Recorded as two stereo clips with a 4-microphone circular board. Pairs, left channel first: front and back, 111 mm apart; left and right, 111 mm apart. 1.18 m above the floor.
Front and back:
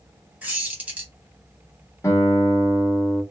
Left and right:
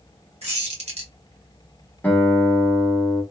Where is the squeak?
105° right, 1.1 m.